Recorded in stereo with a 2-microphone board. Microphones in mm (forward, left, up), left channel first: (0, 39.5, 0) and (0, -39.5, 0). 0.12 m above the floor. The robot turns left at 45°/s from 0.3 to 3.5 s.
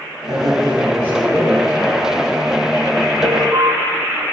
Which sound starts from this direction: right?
An alarm, at 3.2 s.